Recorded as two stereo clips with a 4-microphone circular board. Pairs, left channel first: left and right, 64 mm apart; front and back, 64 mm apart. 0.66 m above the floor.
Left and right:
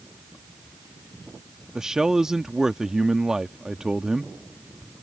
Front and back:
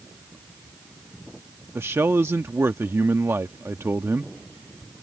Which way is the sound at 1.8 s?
165° right.